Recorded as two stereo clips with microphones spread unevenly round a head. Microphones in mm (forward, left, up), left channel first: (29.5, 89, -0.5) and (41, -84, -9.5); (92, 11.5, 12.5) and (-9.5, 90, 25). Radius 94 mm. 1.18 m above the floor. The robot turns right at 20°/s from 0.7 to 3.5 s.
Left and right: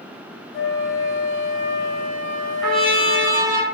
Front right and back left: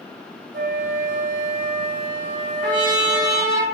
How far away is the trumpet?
About 1.0 m.